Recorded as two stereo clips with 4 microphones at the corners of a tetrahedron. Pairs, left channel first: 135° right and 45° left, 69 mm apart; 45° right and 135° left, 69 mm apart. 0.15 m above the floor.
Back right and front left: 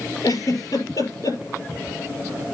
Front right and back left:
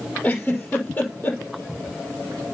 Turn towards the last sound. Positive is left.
turn(degrees=-110)